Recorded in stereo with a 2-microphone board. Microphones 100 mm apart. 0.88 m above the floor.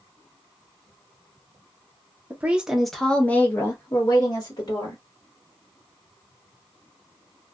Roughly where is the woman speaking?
Centre.